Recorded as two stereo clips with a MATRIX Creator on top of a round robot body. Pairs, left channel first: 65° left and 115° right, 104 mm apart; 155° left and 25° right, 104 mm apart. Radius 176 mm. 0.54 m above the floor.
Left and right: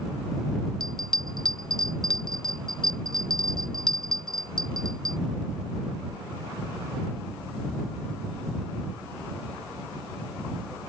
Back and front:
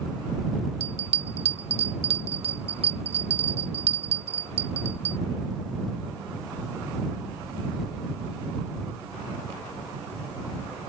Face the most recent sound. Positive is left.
turn(degrees=-20)